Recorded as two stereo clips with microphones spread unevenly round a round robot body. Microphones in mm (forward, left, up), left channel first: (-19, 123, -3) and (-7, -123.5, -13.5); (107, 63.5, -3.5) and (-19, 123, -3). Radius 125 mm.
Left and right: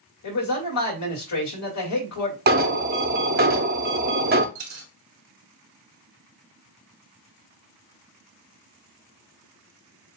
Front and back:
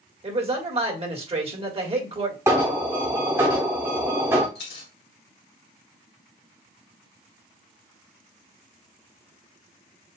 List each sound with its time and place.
0.2 s a man speaking: 110° left, 1.7 m
2.5 s an alarm: 130° right, 0.6 m
4.5 s a dropped coin: 60° right, 1.4 m